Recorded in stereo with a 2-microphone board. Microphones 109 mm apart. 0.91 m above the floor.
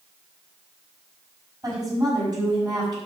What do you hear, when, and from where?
1.6 s a woman speaking: 35° right (ahead or behind), 6 m